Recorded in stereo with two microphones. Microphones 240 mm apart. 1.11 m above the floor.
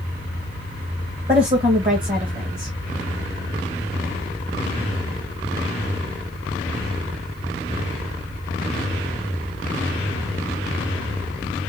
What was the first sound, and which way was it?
A woman speaking, 35° right (ahead or behind).